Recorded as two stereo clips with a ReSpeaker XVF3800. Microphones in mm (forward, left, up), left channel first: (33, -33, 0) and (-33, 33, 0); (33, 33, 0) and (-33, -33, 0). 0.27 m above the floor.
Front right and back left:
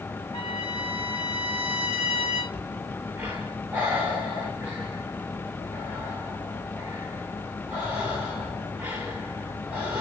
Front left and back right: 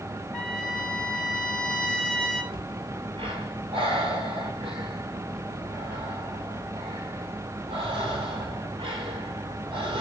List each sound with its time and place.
0.3 s a trumpet: 35° right, 3.5 m
2.5 s breathing: 150° right, 9 m